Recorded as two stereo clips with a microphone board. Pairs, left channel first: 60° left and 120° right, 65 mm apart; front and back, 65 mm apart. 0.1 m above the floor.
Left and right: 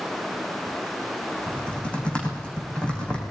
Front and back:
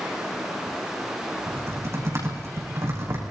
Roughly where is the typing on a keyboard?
Behind left.